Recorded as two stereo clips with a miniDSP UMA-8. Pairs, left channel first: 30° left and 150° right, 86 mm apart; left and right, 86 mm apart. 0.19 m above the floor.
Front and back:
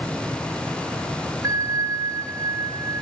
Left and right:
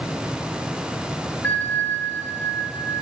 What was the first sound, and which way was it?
A bell, 160° left.